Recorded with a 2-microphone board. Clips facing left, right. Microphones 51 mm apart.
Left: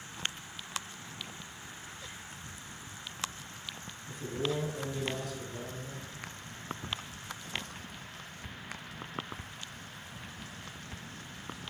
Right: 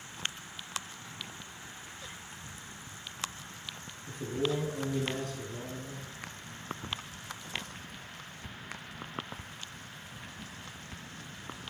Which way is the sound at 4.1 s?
45° right (ahead or behind).